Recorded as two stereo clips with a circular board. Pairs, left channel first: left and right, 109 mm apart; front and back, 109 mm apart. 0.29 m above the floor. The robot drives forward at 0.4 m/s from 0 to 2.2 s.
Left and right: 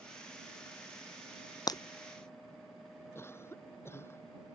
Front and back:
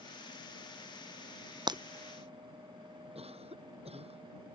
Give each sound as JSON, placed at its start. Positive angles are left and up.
{"t": 1.7, "sound": "breaking glass", "azimuth_deg": 140}
{"t": 3.1, "sound": "a cough", "azimuth_deg": 160}